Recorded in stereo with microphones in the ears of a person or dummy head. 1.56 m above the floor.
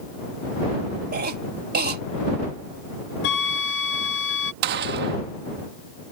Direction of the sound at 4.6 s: 55° right (ahead or behind).